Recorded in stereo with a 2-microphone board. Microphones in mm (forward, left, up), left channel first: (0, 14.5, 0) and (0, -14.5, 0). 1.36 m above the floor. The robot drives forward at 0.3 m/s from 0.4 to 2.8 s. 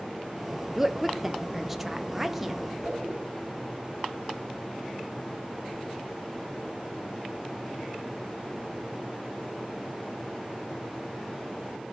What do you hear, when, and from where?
0.8 s a woman speaking: 5° right (ahead or behind), 0.6 m
2.8 s a whoosh: 15° right (ahead or behind), 9.5 m